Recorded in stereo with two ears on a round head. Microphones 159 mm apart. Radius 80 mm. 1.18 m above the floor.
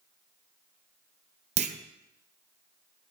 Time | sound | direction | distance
1.6 | a clunk | 40° right (ahead or behind) | 0.9 m